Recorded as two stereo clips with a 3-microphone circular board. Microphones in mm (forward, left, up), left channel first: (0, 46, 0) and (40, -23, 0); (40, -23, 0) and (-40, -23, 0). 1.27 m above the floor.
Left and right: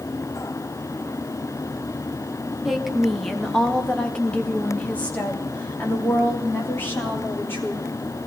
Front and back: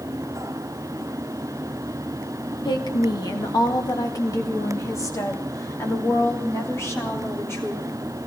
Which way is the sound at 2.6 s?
25° left.